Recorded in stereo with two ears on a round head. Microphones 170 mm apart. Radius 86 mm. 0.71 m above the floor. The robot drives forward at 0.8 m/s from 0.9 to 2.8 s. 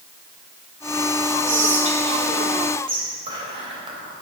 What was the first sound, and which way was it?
Whispering, 45° right (ahead or behind).